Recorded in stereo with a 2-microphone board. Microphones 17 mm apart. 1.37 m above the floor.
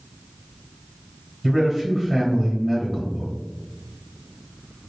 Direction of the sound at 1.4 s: 5° left (ahead or behind).